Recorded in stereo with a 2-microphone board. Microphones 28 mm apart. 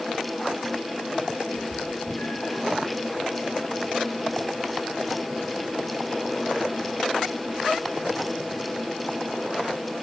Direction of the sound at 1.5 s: 55° left (ahead or behind).